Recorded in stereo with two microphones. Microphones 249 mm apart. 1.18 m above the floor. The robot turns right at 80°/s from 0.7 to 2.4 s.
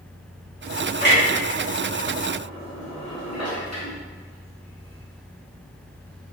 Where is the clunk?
30° right (ahead or behind), 1.1 m; by 6.3 s 80° left, 1.1 m.